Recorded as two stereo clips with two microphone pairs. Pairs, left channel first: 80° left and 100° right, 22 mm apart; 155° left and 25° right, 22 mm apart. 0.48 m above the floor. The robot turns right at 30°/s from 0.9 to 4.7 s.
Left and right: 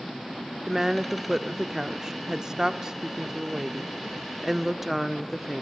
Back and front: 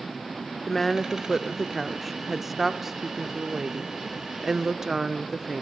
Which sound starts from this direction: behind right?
A woman speaking, at 0.7 s.